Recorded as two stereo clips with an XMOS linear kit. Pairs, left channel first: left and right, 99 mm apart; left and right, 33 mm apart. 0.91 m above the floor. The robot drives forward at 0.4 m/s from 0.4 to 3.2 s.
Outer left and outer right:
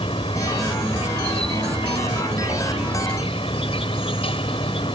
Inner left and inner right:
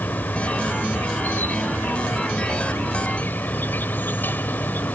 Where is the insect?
85° left; by 5.0 s 75° left (ahead or behind).